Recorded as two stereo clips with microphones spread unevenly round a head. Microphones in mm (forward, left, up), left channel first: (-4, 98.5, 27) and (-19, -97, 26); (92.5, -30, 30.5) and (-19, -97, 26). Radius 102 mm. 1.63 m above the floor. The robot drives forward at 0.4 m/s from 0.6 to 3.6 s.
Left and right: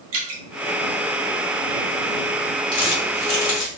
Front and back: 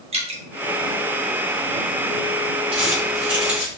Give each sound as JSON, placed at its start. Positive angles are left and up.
{"t": 0.1, "sound": "dripping", "azimuth_deg": -110, "distance_m": 1.4}
{"t": 2.7, "sound": "crumpling", "azimuth_deg": 150, "distance_m": 1.5}